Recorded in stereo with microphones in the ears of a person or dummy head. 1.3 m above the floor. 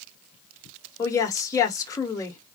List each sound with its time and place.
1.0 s a woman speaking: 20° left (ahead or behind), 1.2 m